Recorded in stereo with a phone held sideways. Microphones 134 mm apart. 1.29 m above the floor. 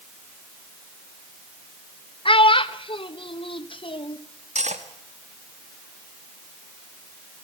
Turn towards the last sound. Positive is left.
turn(degrees=-65)  # may be behind; listen again after turning